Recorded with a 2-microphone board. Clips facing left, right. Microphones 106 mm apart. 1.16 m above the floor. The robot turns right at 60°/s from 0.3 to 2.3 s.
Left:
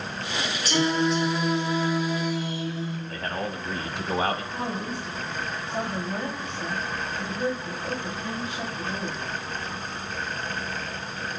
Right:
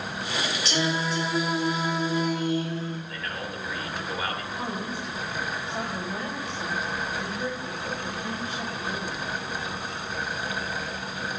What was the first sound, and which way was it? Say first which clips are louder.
Singing: left 6 dB; 130° left.